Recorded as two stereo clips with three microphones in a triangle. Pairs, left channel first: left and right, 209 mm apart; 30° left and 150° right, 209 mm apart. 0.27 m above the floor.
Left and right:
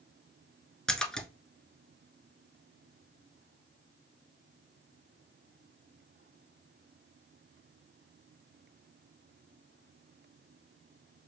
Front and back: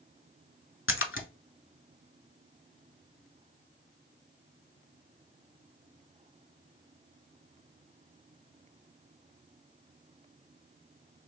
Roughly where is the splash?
Ahead.